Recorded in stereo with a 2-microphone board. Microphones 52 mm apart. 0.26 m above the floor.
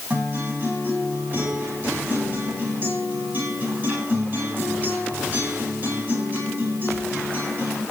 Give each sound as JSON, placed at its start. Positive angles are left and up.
{"t": 0.1, "sound": "a guitar", "side_deg": -40, "distance_m": 10.0}